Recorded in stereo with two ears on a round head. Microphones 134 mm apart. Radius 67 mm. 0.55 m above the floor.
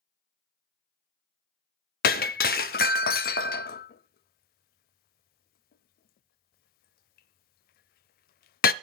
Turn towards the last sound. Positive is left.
turn(degrees=70)  # may be behind; listen again after turning